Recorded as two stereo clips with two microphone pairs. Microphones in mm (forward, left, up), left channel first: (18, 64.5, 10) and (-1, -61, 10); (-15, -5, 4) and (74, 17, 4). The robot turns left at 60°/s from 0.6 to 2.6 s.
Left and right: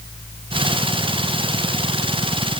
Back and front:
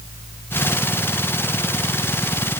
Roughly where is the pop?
No pop in this recording.